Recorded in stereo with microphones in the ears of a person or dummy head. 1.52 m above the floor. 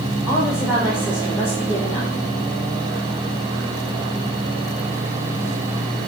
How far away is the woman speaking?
About 1.3 m.